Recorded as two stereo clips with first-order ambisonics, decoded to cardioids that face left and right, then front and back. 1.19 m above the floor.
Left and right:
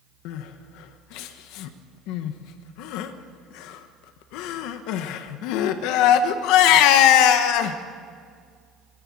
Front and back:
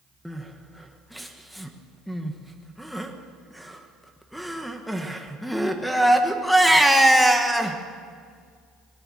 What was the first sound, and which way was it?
Crying, 90° left.